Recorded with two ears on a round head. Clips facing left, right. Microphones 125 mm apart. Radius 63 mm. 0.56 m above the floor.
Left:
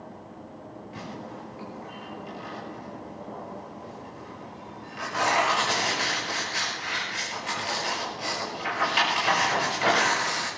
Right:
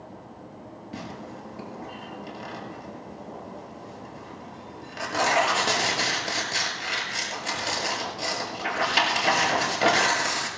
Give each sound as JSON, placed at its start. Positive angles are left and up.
{"t": 0.9, "sound": "tearing paper", "side_deg": -50, "distance_m": 7.0}